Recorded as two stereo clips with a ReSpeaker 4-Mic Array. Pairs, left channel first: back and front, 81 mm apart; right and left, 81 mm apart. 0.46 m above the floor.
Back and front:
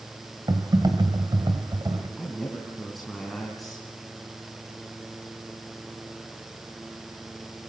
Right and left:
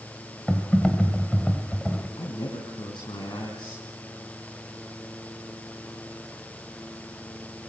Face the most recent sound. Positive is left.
turn(degrees=-90)